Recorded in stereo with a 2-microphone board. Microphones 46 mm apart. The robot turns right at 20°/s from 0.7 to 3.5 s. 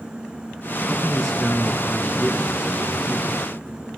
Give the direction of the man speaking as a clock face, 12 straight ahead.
7 o'clock.